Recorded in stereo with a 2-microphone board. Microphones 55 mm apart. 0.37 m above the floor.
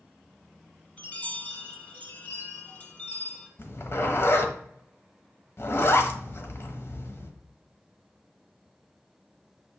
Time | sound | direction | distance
1.0 | a chime | 25° left (ahead or behind) | 1.3 m
3.6 | a zipper | 50° left (ahead or behind) | 1.2 m